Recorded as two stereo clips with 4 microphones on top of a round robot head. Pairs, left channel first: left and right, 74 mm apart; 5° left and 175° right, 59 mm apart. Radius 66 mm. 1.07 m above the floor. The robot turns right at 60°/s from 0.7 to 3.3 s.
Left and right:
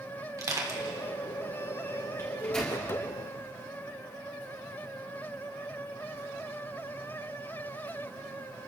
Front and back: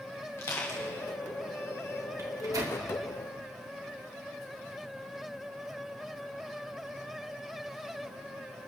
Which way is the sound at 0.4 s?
45° right.